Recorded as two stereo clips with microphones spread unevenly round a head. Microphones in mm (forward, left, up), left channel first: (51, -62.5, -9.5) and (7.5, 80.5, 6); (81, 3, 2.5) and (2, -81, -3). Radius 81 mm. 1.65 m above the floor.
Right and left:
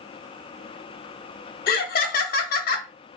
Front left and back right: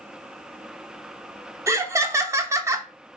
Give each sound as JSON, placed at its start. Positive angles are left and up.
{"t": 1.7, "sound": "laughter", "azimuth_deg": -70, "distance_m": 0.7}